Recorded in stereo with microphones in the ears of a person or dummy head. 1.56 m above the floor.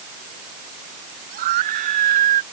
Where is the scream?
50° right (ahead or behind); by 2.4 s 45° right (ahead or behind).